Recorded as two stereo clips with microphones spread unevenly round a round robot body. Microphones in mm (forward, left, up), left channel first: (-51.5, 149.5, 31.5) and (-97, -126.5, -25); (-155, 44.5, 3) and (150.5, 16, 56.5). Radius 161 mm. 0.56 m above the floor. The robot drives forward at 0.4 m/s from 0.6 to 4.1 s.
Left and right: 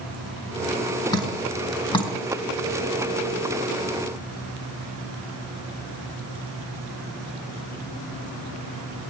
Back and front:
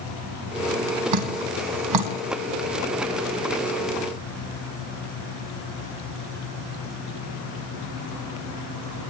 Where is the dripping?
5° left, 4 m.